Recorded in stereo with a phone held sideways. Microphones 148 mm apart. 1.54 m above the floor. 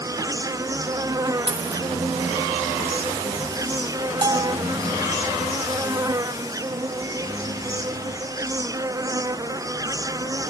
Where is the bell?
30° right (ahead or behind).